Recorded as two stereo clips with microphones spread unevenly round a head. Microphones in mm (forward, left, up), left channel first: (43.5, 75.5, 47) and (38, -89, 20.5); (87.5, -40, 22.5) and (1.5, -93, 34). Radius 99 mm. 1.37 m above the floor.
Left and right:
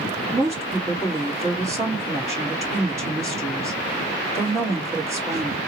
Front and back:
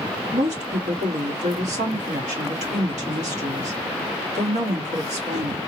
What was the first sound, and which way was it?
A woman speaking, 170° right.